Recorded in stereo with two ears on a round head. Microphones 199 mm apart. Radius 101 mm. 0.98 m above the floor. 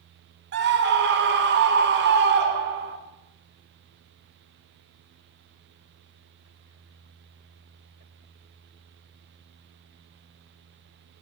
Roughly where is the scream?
Right.